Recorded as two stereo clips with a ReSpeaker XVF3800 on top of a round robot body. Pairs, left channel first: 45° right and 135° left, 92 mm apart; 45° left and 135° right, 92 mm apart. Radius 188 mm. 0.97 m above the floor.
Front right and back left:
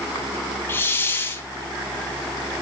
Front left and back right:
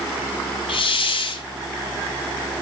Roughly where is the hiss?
Ahead.